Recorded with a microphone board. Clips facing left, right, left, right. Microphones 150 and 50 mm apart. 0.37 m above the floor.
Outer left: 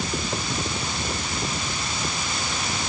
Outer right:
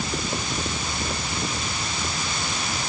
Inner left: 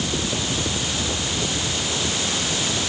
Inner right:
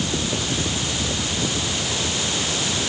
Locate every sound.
Only background noise.